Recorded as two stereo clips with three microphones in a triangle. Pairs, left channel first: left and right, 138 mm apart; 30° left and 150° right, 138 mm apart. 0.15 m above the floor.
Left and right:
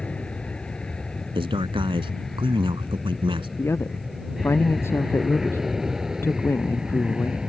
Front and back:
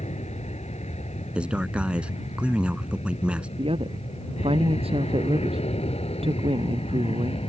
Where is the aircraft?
10° left; by 7.5 s 5° right.